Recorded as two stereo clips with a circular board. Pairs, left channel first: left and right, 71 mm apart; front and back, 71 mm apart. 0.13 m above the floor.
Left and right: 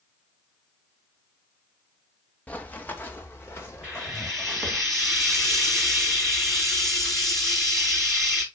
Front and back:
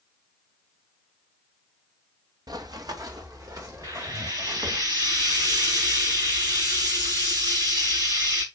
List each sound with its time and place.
2.5 s running footsteps: 160° left, 1.0 m; by 4.8 s 145° left, 3.5 m
3.8 s frying: 175° left, 7 m